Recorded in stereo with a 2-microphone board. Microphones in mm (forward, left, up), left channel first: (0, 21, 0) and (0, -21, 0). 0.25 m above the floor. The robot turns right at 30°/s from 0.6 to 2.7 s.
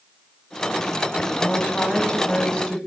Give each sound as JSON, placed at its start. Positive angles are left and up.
{"t": 1.4, "sound": "a woman speaking", "azimuth_deg": 120, "distance_m": 1.4}